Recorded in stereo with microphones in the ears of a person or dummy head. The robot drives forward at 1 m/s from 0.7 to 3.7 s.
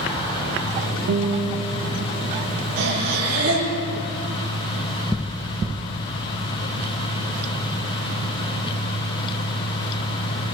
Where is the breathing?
85° right, 7.5 m; by 3.7 s 80° right, 7.5 m.